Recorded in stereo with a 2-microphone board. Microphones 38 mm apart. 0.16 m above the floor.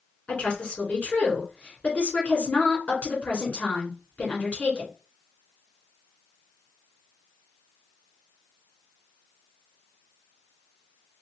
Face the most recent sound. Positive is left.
turn(degrees=40)  # may be behind; listen again after turning